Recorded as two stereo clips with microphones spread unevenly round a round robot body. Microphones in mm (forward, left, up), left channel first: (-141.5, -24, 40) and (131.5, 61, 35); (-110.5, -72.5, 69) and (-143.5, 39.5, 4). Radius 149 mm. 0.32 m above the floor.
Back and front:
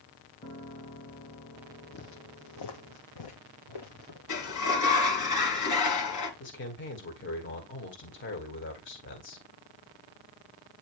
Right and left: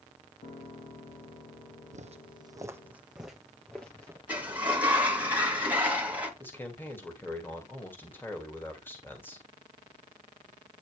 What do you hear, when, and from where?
0.4 s a piano: 85° right, 2.5 m
1.9 s footsteps: 140° left, 0.9 m; by 4.2 s 150° right, 2.5 m
4.3 s a sliding door: 175° left, 2.5 m
6.4 s a man speaking: 175° right, 1.9 m